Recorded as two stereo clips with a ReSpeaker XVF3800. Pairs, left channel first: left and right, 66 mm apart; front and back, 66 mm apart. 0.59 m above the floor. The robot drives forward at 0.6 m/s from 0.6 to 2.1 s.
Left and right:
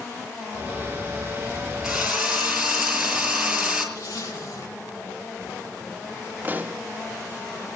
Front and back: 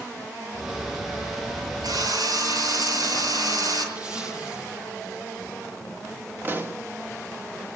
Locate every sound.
1.8 s a drill: 175° right, 6 m
4.0 s a zipper: 110° left, 8.5 m
6.4 s a pop: 140° right, 1.5 m